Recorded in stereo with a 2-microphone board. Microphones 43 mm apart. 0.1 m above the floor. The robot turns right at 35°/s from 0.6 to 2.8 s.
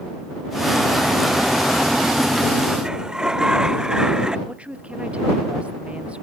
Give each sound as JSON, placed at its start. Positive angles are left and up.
{"t": 2.8, "sound": "a sliding door", "side_deg": -15}
{"t": 4.5, "sound": "a woman speaking", "side_deg": -30}